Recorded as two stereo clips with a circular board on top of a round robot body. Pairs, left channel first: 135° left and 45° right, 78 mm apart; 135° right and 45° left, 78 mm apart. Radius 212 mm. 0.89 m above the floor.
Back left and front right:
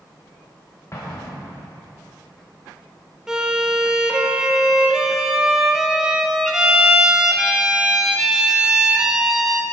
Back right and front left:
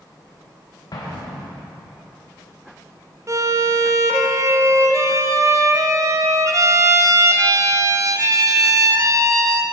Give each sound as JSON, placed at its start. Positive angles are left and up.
{"t": 0.9, "sound": "an explosion", "azimuth_deg": -170, "distance_m": 0.6}
{"t": 3.3, "sound": "a violin", "azimuth_deg": 35, "distance_m": 0.8}